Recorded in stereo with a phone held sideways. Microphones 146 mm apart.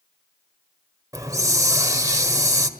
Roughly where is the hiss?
Right.